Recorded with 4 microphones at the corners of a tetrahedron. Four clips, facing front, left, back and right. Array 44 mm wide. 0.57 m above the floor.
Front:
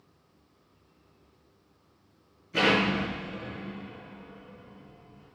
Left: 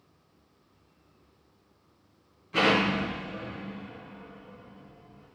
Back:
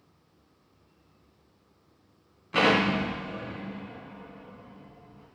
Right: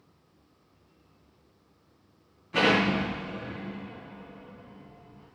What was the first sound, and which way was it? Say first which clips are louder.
An explosion: right 1 dB, back 1 dB; straight behind.